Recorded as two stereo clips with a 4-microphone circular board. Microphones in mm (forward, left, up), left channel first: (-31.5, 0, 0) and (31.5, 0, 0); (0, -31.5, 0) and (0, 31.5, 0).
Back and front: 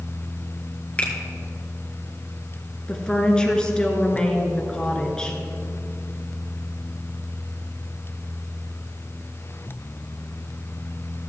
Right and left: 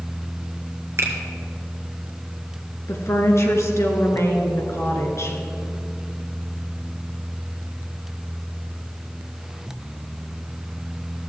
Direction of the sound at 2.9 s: 105° right.